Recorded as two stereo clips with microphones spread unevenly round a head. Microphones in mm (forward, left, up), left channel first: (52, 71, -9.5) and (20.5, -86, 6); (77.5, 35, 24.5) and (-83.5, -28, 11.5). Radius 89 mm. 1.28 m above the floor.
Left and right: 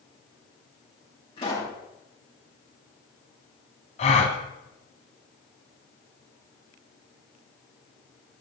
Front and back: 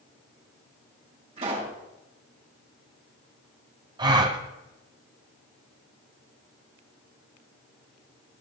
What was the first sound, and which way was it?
A pop, 145° left.